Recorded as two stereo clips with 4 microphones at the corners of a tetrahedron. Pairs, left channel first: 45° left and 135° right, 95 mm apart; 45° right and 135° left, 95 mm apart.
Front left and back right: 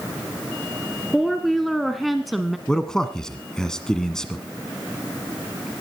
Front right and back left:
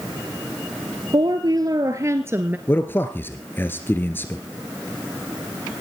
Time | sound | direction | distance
1.1 | a woman speaking | 135° left | 1.6 m
2.7 | a man speaking | 30° right | 1.3 m